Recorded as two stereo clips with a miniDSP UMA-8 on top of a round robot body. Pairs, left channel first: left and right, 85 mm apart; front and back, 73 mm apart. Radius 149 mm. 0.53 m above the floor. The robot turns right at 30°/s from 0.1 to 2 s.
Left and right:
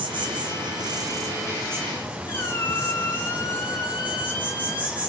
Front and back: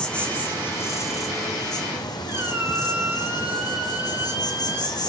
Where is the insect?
75° right, 1.3 m; by 5.1 s 20° right, 1.3 m.